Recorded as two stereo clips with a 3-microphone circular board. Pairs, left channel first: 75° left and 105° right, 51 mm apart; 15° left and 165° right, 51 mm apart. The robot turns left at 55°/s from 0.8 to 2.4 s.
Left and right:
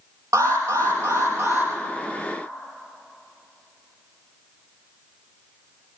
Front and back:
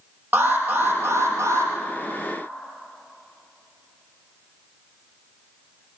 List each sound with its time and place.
0.3 s an alarm: 110° right, 4.5 m; by 1.7 s 160° right, 4.5 m